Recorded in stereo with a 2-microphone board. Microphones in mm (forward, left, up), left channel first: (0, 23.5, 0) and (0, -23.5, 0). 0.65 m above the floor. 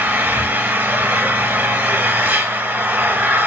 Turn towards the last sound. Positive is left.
turn(degrees=-35)  # may be behind; listen again after turning